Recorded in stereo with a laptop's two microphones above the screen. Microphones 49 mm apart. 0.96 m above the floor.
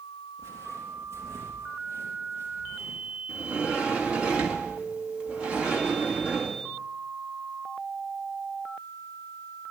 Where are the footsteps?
75° right (ahead or behind), 4.5 m; by 3.2 s 80° right, 6 m.